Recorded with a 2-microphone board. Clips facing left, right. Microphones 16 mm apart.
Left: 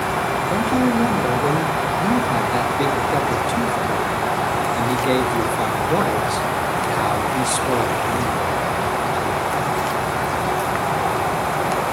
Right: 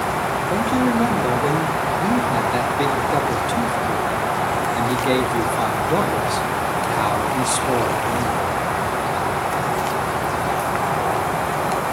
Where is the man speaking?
5° right (ahead or behind), 1.7 m.